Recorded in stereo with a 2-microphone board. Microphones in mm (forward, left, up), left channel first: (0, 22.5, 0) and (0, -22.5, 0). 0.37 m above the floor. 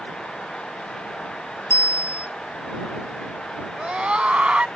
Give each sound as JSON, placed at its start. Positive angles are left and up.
{"t": 1.7, "sound": "a bicycle bell", "side_deg": 75}
{"t": 3.7, "sound": "a scream", "side_deg": -25}